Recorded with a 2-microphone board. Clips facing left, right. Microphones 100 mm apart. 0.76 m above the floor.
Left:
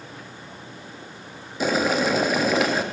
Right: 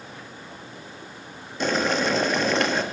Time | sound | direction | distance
1.6 | boiling | 5° left (ahead or behind) | 0.6 m